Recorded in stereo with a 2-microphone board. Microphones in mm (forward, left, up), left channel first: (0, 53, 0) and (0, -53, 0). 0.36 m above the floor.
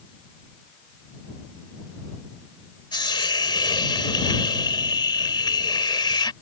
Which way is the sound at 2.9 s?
40° left (ahead or behind).